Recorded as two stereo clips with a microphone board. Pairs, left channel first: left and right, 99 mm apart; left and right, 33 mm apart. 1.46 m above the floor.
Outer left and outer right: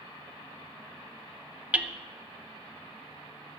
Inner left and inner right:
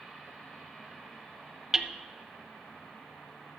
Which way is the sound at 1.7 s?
15° right (ahead or behind).